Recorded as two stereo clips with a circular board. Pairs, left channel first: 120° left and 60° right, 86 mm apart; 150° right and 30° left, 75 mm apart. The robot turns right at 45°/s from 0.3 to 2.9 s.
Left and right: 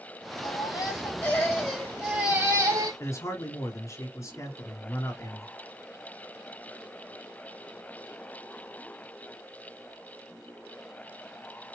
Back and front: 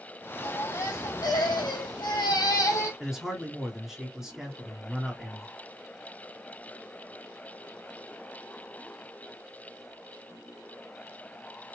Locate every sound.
0.4 s a baby crying: 155° left, 2.5 m; by 2.9 s 95° right, 2.5 m
3.0 s a man speaking: 110° left, 1.9 m